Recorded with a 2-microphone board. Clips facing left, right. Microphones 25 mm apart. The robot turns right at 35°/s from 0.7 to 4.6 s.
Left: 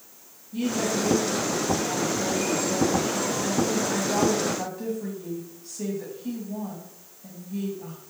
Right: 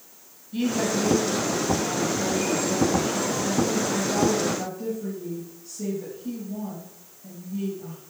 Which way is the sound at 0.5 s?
55° right.